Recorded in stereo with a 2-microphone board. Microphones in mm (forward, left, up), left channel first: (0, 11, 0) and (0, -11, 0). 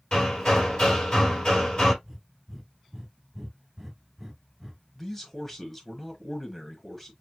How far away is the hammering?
About 2.5 m.